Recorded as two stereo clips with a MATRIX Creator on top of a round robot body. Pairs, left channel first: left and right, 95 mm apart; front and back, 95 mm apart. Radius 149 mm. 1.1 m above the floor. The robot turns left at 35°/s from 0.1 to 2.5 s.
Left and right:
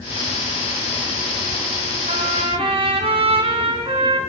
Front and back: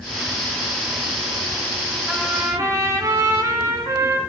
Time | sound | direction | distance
2.1 | a trumpet | 100° right | 1.8 m